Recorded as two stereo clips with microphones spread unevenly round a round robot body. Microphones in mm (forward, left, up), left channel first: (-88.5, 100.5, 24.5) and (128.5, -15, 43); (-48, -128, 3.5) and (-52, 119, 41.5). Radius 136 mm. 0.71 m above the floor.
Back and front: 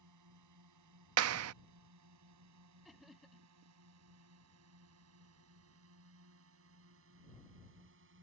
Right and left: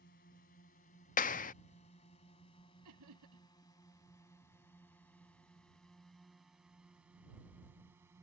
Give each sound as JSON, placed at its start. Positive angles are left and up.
{"t": 0.0, "sound": "a drone", "azimuth_deg": -30}
{"t": 1.2, "sound": "a clap", "azimuth_deg": -40}
{"t": 2.9, "sound": "laughter", "azimuth_deg": 60}